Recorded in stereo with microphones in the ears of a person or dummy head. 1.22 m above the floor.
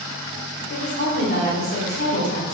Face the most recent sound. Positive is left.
turn(degrees=50)  # may be behind; listen again after turning